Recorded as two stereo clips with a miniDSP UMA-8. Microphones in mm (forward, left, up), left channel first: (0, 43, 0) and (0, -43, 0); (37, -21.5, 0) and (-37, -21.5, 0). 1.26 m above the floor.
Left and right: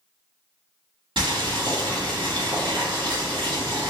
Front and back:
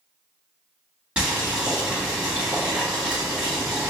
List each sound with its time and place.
1.2 s boiling: 105° right, 1.9 m